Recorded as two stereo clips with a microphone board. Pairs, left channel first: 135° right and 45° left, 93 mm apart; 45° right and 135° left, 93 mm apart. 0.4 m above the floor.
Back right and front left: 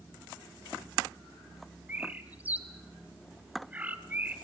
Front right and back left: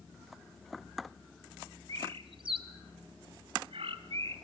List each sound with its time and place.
1.9 s a bird: 115° left, 1.2 m